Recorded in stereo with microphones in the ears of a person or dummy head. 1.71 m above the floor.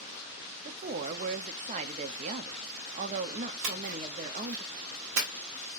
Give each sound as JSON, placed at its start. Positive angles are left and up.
{"t": 0.7, "sound": "a woman speaking", "side_deg": -35, "distance_m": 0.8}
{"t": 3.6, "sound": "a splash", "side_deg": -75, "distance_m": 1.4}